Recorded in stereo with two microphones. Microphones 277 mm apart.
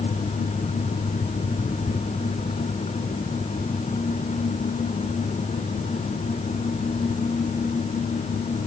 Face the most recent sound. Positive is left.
No sound to turn to.